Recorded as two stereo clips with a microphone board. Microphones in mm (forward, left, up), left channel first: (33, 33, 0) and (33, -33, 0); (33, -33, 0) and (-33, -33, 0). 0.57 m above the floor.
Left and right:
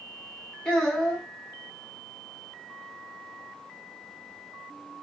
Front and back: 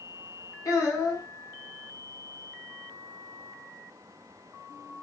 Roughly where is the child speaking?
Ahead.